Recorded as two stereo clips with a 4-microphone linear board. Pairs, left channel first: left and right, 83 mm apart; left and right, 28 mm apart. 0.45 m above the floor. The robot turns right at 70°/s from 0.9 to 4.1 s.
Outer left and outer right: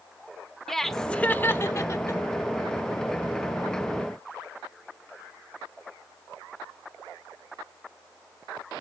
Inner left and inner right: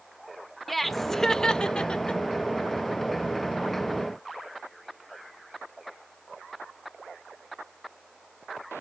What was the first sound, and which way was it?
Laughter, 5° left (ahead or behind).